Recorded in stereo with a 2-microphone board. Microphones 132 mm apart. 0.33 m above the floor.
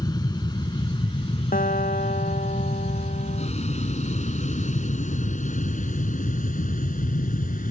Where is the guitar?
75° left (ahead or behind).